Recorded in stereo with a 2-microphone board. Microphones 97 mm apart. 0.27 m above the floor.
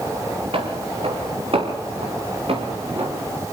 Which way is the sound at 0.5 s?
70° right (ahead or behind).